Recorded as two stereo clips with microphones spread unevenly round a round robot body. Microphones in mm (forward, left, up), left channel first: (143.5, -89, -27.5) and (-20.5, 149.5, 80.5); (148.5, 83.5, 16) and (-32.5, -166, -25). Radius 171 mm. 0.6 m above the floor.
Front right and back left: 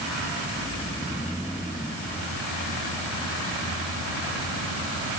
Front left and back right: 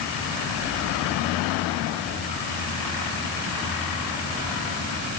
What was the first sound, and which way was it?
Only background noise.